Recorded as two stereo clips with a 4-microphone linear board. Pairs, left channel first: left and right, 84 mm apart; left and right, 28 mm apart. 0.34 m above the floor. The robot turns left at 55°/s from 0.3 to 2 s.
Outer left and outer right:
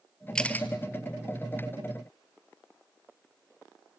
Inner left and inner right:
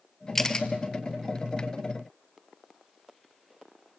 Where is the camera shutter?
10° left (ahead or behind), 1.5 m; by 0.7 s 25° left (ahead or behind), 1.5 m.